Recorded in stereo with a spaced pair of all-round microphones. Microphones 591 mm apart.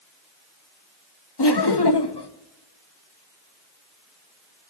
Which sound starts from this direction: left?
Laughter, at 1.4 s.